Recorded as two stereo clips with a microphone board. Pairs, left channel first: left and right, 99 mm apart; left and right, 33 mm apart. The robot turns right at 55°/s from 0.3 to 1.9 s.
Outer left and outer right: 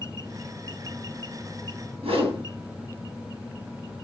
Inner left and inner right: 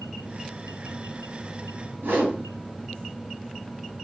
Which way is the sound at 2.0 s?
75° right (ahead or behind).